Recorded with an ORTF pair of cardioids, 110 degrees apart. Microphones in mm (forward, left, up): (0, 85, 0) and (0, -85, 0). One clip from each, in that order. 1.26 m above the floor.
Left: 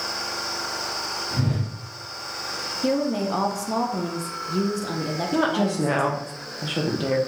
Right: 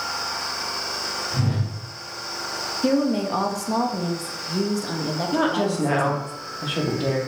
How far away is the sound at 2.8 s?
About 0.6 m.